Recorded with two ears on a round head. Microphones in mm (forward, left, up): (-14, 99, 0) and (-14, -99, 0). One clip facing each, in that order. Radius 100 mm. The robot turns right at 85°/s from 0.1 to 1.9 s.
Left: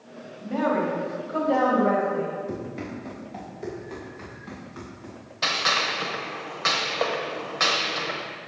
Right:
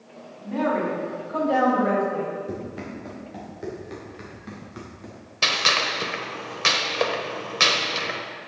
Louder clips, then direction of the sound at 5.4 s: Right 2 dB; 40° right (ahead or behind).